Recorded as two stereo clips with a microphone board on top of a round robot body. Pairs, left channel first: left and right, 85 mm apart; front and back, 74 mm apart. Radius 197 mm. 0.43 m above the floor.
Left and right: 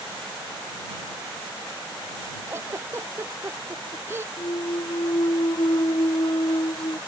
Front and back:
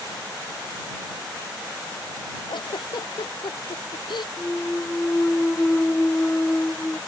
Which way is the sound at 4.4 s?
70° left.